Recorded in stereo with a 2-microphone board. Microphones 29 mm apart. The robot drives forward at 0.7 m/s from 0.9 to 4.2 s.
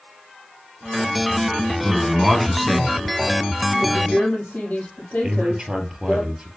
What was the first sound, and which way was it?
A man speaking, centre (ahead or behind).